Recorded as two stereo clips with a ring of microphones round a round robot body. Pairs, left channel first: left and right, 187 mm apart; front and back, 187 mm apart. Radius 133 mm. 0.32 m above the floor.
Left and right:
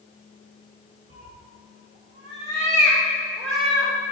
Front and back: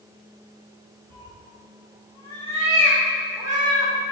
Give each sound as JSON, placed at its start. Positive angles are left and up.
{"t": 1.1, "sound": "a cat meowing", "azimuth_deg": -45, "distance_m": 1.6}